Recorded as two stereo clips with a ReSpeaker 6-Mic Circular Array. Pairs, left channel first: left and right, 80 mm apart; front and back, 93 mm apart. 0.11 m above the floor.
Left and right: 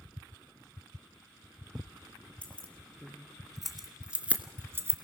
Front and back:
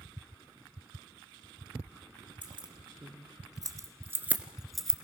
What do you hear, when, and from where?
2.4 s keys jangling: 165° left, 2.5 m; by 4.9 s 80° right, 1.3 m